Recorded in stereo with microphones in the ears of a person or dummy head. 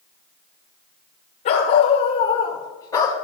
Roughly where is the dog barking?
Left.